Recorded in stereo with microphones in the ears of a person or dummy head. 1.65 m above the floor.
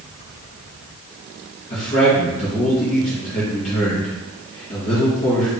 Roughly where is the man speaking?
Left.